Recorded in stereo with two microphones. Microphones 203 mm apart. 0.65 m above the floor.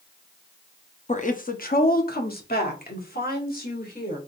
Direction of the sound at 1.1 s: 35° left (ahead or behind).